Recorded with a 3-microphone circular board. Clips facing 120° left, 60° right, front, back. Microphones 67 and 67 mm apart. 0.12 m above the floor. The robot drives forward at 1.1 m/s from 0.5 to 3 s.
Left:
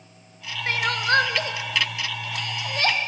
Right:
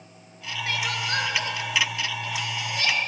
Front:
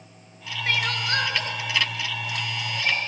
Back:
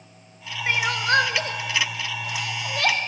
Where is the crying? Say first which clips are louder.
Left 6 dB, back 4 dB; 115° left, 1.1 m; by 3.0 s 165° left, 3 m.